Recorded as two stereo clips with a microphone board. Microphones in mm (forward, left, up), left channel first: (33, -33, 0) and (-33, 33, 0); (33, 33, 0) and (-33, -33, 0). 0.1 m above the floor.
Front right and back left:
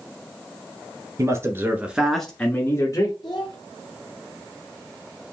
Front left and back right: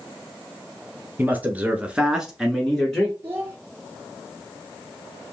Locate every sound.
1.2 s a man speaking: 165° left, 1.4 m; by 3.1 s 35° right, 1.3 m
3.2 s a child speaking: 75° right, 1.9 m